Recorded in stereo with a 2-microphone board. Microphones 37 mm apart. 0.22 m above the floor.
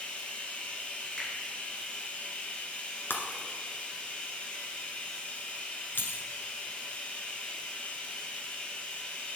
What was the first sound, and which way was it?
Running water, 30° left (ahead or behind).